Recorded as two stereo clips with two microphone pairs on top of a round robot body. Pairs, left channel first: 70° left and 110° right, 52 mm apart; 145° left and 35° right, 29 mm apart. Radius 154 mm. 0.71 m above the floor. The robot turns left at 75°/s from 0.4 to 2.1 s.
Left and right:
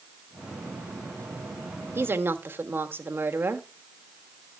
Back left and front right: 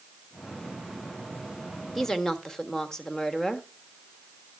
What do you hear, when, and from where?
1.9 s a woman speaking: 140° right, 1.5 m; by 3.7 s 150° right, 1.5 m